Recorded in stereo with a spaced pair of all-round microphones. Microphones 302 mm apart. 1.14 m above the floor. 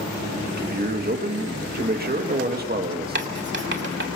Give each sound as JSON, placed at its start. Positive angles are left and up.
{"t": 0.6, "sound": "a man speaking", "side_deg": -30, "distance_m": 2.0}
{"t": 3.1, "sound": "writing", "side_deg": -35, "distance_m": 2.5}